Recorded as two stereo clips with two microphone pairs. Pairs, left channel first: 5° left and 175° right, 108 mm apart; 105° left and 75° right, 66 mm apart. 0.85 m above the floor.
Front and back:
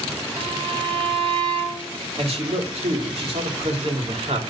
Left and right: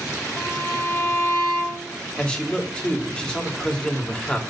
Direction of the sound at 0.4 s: 145° left.